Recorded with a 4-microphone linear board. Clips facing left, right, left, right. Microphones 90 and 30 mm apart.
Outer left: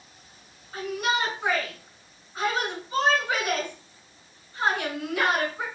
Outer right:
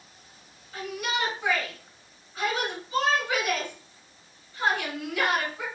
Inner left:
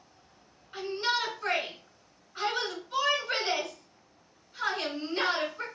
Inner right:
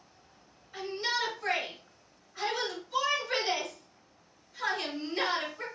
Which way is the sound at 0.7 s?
45° left (ahead or behind).